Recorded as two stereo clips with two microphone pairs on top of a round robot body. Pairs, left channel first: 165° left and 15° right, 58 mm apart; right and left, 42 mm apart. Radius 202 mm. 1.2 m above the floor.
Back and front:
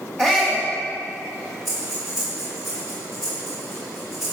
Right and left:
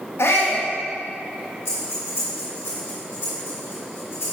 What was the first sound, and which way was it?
A shout, 105° right.